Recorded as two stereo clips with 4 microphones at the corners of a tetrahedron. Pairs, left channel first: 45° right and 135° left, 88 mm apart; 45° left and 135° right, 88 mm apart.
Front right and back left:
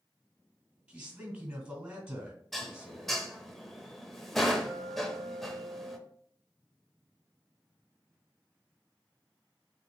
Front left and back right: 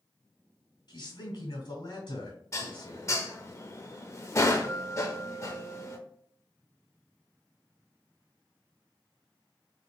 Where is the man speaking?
70° left, 2 m.